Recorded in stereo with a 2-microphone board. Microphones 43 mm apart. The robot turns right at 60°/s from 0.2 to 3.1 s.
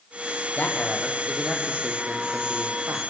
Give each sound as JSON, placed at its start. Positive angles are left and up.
{"t": 0.6, "sound": "a man speaking", "azimuth_deg": 145, "distance_m": 6.0}